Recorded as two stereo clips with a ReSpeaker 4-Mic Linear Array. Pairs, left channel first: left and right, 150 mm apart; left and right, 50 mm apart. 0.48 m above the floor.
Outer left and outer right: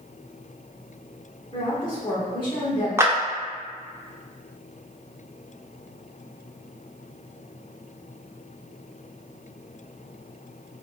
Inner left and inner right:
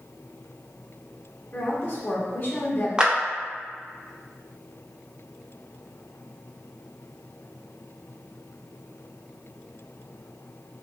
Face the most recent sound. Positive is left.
turn(degrees=-15)  # may be behind; listen again after turning